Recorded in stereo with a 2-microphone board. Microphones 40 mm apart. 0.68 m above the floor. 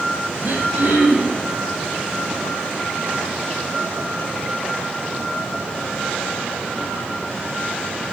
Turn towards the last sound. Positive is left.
turn(degrees=-60)  # may be behind; listen again after turning